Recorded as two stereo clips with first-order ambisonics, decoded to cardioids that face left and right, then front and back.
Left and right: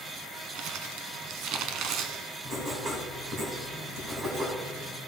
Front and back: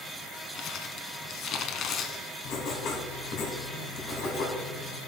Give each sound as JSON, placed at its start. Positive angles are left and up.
{"t": 0.6, "sound": "crumpling", "azimuth_deg": -55, "distance_m": 0.9}
{"t": 2.5, "sound": "writing", "azimuth_deg": -35, "distance_m": 2.5}